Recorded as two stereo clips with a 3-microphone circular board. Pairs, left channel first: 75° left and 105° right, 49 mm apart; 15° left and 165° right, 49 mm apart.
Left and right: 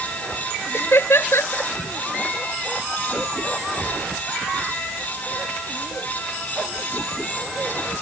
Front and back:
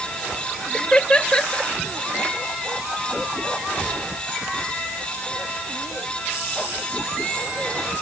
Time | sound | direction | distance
0.7 | laughter | 80° left | ?